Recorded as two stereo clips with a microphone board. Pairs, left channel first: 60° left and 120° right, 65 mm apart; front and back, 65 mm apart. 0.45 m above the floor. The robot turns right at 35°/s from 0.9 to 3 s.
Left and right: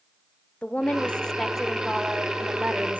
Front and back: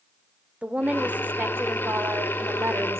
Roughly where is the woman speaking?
Behind left.